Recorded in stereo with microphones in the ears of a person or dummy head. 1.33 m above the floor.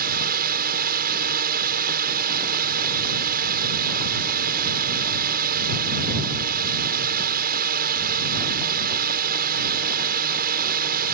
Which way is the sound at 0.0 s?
50° right (ahead or behind).